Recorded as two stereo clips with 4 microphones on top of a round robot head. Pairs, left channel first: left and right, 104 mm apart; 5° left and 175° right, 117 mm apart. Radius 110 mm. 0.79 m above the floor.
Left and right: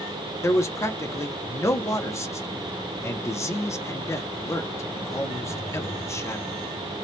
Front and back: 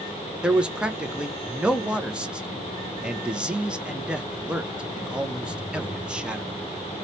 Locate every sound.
0.4 s a man speaking: 115° left, 0.7 m